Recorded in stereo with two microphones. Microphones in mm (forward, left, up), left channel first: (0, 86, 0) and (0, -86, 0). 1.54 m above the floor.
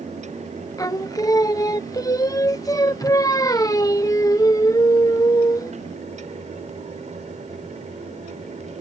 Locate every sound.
0.8 s singing: 20° left (ahead or behind)